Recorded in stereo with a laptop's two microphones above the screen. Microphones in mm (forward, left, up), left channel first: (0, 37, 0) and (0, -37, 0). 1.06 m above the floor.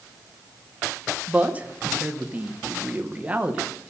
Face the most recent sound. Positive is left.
turn(degrees=-20)  # may be behind; listen again after turning